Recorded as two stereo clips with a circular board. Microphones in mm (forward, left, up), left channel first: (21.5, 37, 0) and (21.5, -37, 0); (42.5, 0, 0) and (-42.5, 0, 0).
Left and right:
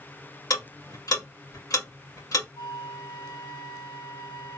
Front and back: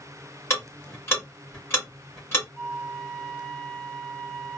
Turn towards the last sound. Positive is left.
turn(degrees=80)